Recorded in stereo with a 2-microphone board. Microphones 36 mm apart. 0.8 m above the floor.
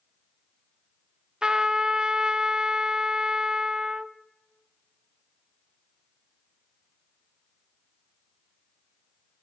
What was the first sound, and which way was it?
A trumpet, 25° right (ahead or behind).